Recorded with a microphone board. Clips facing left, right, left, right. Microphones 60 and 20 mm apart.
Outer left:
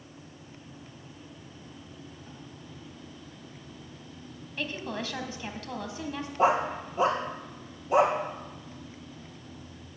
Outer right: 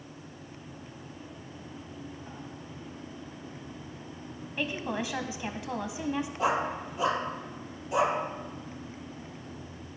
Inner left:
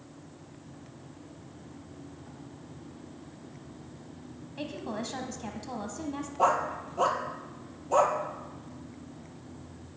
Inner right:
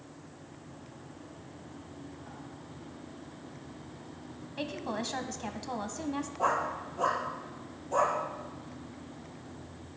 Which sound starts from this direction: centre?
A woman speaking, at 4.6 s.